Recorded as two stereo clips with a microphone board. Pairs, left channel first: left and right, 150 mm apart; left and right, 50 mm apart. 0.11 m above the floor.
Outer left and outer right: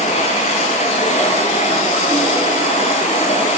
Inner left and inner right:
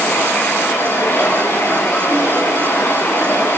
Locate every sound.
0.0 s running water: 45° left (ahead or behind), 8.5 m